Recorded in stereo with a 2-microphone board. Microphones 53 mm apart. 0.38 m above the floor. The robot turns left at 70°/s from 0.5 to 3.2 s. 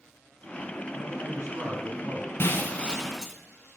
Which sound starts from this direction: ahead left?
Breaking glass, at 2.4 s.